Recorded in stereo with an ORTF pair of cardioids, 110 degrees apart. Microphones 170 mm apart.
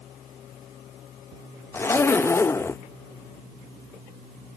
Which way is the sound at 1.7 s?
15° left.